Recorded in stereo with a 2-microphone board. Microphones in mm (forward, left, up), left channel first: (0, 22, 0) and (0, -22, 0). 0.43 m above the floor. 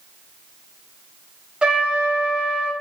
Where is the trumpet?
20° right (ahead or behind), 0.6 m.